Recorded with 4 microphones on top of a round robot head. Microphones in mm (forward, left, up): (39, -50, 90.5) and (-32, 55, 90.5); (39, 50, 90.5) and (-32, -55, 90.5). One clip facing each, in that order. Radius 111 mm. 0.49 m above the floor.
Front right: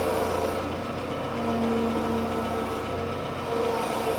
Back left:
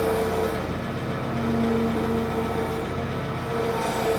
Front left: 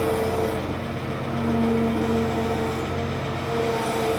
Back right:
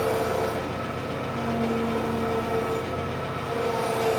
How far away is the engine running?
About 8.5 m.